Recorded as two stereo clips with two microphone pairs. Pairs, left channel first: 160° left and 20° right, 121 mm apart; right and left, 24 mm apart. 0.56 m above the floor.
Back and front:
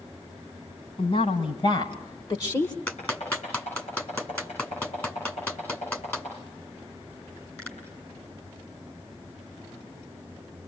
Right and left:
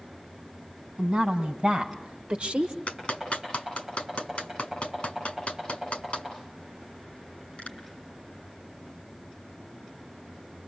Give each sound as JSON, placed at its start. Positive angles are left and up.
{"t": 1.0, "sound": "a woman speaking", "azimuth_deg": 125, "distance_m": 4.0}
{"t": 2.9, "sound": "a clap", "azimuth_deg": -125, "distance_m": 6.0}